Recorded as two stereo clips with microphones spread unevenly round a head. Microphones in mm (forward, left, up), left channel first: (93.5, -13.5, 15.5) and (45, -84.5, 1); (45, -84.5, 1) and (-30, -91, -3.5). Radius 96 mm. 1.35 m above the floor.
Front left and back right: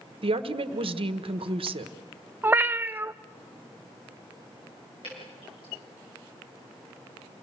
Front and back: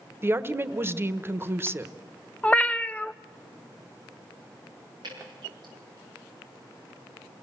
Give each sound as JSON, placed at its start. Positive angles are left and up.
{"t": 0.2, "sound": "a woman speaking", "azimuth_deg": -115, "distance_m": 1.2}
{"t": 2.4, "sound": "a cat meowing", "azimuth_deg": -55, "distance_m": 0.6}
{"t": 5.0, "sound": "dripping", "azimuth_deg": 115, "distance_m": 8.0}